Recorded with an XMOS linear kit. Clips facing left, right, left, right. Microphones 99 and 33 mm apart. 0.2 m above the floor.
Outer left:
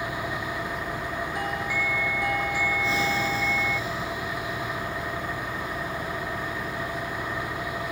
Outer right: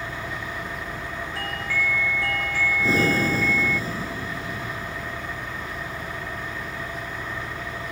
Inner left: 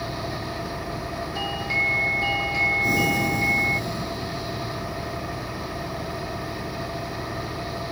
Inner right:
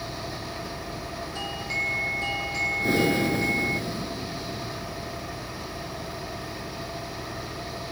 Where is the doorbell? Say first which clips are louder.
Outer right 2 dB, inner left 5 dB; 15° left (ahead or behind).